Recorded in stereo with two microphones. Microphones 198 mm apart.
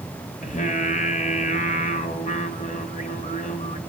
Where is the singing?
45° left (ahead or behind), 1.7 m.